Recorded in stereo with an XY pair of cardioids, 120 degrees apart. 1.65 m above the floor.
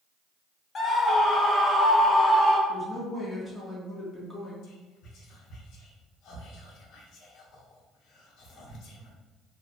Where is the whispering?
65° left, 1.2 m.